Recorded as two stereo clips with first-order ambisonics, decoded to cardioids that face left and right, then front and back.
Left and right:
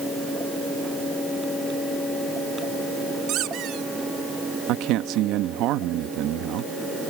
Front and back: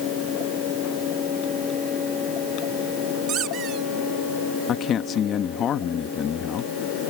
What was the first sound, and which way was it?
A squeak, 130° right.